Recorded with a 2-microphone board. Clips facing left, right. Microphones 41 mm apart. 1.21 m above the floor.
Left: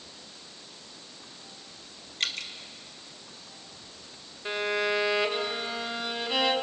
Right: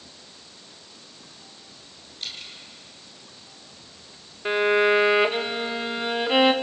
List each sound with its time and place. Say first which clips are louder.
2.2 s dripping: left 5 dB; 80° left, 1.6 m
4.5 s a violin: right 9 dB; 35° right (ahead or behind), 1.3 m